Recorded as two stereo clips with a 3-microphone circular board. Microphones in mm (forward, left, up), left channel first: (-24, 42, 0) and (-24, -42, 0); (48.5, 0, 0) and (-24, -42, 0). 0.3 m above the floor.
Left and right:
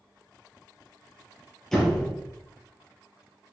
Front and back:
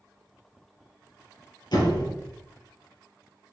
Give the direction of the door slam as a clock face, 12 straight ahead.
12 o'clock.